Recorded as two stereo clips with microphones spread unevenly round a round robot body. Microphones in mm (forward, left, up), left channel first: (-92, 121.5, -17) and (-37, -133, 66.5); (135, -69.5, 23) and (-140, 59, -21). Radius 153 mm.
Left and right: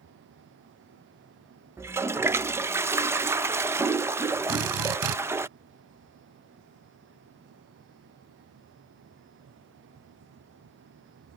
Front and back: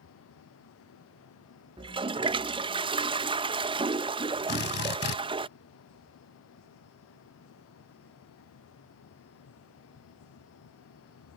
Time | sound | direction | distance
1.8 | a toilet flushing | 170° left | ?
4.5 | a drill | 75° right | ?